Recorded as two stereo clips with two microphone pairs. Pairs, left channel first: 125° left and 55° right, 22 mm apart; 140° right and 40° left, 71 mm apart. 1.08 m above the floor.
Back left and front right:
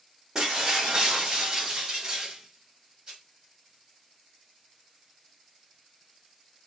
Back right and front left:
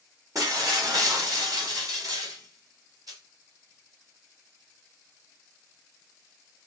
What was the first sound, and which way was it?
Breaking glass, 5° left.